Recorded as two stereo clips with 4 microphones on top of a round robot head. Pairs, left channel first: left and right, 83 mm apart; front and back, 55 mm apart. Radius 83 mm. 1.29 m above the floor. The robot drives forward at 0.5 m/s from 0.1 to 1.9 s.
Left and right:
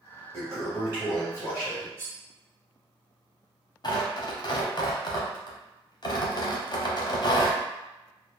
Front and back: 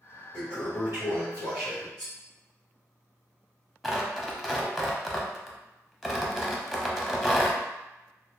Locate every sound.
0.3 s a toilet flushing: 110° right, 1.2 m; by 1.9 s 150° right, 1.5 m
2.0 s cutlery clinking: 145° right, 1.2 m
3.8 s tearing paper: 95° left, 0.7 m